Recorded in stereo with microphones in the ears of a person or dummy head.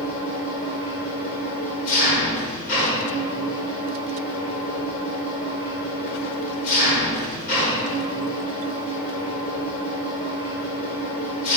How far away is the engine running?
About 4.5 m.